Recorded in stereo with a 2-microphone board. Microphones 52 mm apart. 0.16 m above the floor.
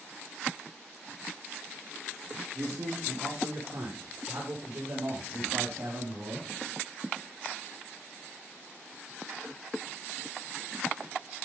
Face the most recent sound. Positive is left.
turn(degrees=-60)  # may be behind; listen again after turning